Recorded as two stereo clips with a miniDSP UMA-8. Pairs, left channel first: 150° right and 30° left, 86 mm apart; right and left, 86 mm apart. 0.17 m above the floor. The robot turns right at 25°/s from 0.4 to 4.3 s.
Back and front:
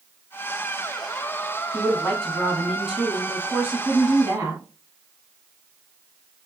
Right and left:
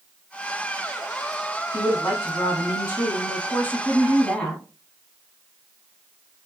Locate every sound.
1.7 s a woman speaking: 85° right, 1.3 m; by 4.6 s 20° right, 1.3 m